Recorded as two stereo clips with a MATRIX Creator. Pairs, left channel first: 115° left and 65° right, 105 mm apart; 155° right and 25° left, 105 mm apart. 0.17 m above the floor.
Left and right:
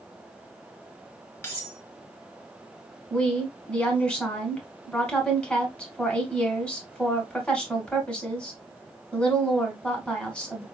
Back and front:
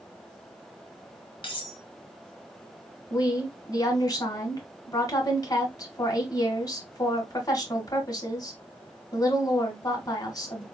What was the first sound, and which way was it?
Cutlery clinking, 175° left.